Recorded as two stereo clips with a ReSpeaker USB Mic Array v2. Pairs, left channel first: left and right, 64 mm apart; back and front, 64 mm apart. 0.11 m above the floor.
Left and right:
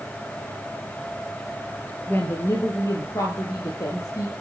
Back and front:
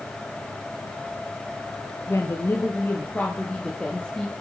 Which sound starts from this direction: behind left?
A woman speaking, at 2.1 s.